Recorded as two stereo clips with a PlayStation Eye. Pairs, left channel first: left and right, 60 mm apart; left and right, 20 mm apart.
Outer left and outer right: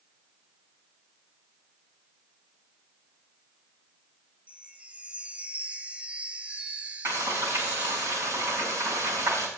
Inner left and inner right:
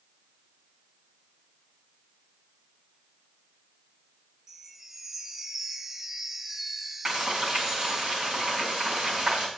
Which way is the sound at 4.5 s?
25° right (ahead or behind).